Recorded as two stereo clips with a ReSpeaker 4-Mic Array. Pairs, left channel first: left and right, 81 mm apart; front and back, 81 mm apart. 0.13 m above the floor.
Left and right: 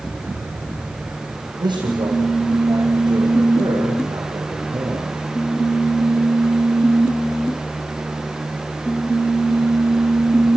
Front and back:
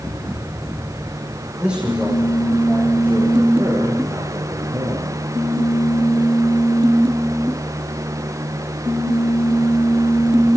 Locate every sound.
1.6 s a man speaking: 100° right, 7 m; by 5.2 s 135° right, 6 m